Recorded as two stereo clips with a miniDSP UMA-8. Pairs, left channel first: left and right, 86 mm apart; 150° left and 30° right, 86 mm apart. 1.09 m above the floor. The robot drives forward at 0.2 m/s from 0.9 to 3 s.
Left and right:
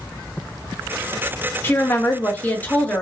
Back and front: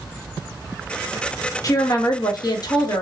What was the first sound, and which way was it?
A woman speaking, 140° left.